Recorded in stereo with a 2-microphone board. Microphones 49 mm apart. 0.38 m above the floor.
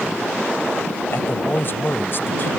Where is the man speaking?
55° left (ahead or behind).